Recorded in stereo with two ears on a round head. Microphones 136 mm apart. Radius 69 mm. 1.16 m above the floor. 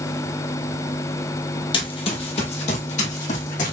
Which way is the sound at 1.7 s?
35° left (ahead or behind).